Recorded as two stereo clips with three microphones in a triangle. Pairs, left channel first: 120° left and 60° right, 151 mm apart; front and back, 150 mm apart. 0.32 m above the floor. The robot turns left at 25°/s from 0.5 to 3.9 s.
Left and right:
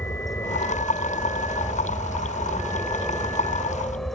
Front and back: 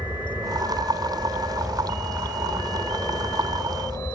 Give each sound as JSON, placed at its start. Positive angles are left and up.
{"t": 0.0, "sound": "an aircraft", "azimuth_deg": 120}